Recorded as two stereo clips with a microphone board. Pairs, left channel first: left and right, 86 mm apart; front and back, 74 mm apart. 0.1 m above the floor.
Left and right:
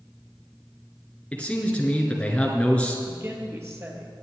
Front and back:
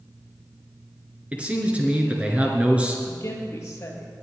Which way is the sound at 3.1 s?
40° right.